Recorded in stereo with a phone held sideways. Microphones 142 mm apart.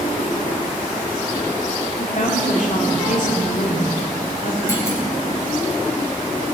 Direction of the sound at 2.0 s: 60° left (ahead or behind).